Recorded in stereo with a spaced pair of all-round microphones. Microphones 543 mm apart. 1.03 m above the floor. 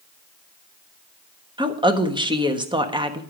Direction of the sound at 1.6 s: 10° right (ahead or behind).